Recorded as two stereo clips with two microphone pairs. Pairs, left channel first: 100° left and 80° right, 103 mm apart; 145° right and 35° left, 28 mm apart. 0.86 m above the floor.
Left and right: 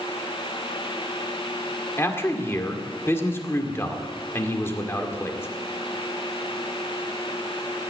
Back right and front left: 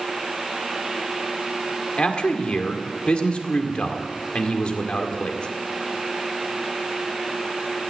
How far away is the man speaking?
About 2 m.